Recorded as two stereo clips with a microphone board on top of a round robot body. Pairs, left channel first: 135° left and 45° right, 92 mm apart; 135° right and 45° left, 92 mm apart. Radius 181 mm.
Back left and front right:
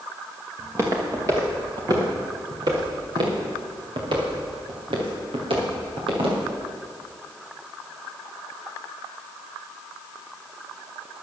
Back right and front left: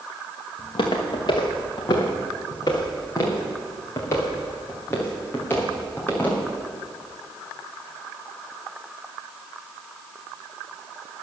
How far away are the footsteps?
About 2.5 m.